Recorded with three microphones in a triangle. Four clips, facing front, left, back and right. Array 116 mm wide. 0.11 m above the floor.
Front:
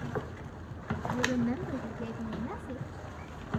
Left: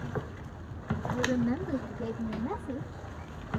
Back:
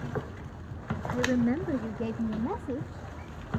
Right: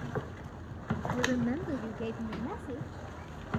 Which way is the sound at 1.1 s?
140° right.